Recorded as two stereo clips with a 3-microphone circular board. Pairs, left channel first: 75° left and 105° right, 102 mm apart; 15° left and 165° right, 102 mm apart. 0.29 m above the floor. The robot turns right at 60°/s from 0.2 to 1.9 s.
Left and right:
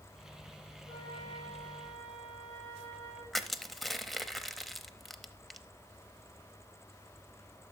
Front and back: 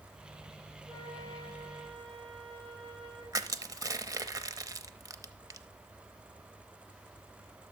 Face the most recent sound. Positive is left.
turn(degrees=165)